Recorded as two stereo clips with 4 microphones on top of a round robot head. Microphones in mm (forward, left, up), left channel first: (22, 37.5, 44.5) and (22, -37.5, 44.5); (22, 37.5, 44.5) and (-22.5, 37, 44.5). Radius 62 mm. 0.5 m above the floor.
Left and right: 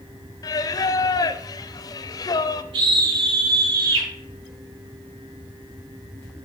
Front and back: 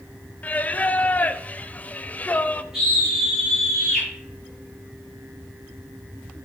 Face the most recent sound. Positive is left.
turn(degrees=-95)